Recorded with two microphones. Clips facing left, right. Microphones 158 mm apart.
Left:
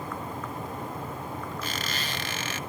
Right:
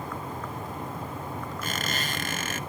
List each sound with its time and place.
1.6 s a squeak: 45° right (ahead or behind), 0.6 m